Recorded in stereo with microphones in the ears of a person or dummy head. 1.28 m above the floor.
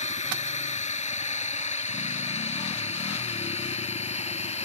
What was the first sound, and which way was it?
A drone, 40° left (ahead or behind).